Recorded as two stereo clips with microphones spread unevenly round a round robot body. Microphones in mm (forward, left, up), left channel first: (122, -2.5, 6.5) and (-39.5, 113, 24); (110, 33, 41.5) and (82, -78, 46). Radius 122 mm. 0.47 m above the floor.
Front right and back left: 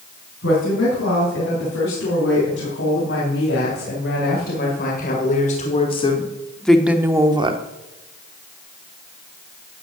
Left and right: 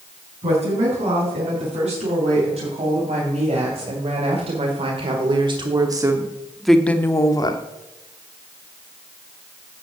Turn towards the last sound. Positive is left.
turn(degrees=90)